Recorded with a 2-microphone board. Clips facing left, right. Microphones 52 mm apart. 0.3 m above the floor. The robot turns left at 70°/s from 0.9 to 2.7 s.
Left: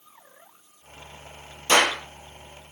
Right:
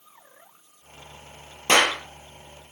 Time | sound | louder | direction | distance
1.7 | a clap | even | 45° right (ahead or behind) | 5.5 m